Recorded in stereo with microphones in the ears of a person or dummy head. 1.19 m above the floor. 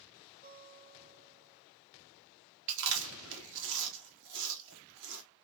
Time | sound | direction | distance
0.4 | a guitar | 20° right (ahead or behind) | 1.0 m
2.7 | chewing | 65° right (ahead or behind) | 1.0 m